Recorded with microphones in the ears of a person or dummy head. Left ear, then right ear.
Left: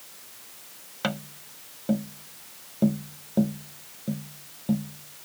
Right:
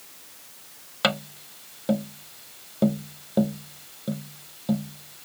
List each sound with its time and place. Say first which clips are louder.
1.0 s tapping: right 7 dB; 25° right (ahead or behind)